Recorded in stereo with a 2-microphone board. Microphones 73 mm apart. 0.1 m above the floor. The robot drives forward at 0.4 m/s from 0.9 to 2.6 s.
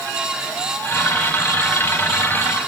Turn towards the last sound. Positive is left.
No sound to turn to.